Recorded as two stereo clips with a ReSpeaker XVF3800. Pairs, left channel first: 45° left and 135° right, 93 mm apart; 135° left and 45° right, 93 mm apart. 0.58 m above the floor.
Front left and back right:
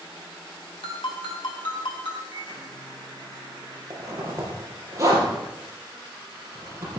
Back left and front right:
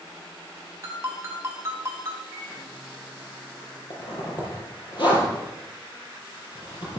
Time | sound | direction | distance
0.8 | a ringtone | 20° left | 2.5 m
2.3 | a microwave | 175° left | 9 m
3.9 | a zipper | 170° left | 5 m